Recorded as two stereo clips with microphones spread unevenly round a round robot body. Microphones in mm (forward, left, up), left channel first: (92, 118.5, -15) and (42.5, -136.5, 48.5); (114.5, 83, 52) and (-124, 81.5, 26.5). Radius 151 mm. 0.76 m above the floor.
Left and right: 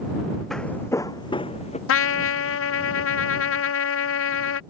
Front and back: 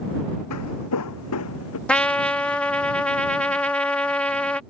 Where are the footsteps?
15° right; by 1.8 s 10° left.